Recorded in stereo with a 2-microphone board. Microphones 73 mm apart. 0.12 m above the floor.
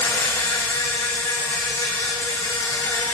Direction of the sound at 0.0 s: 55° left (ahead or behind).